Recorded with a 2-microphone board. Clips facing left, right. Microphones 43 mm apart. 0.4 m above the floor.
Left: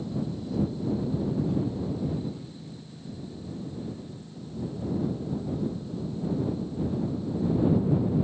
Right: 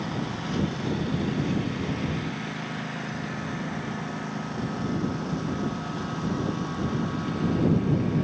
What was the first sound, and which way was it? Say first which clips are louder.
A lawn mower: right 2 dB; 85° right.